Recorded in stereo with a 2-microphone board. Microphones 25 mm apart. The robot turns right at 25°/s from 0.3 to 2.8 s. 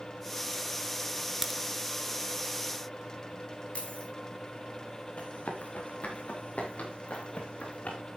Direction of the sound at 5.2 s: 70° left (ahead or behind).